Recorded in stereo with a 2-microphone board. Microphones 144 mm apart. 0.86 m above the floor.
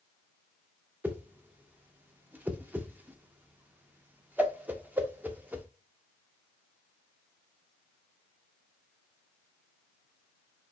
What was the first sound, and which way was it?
A whoosh, 10° right (ahead or behind).